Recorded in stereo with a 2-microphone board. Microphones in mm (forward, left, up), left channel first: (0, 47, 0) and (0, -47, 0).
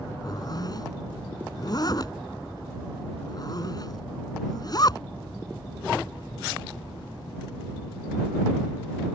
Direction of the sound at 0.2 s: 45° left (ahead or behind).